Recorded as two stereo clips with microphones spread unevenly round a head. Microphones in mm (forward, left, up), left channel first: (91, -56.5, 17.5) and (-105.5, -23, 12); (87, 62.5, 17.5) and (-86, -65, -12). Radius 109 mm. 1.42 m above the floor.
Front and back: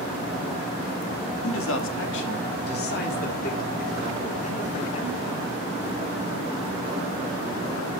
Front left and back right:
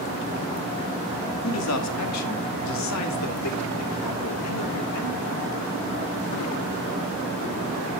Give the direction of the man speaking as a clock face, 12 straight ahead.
11 o'clock.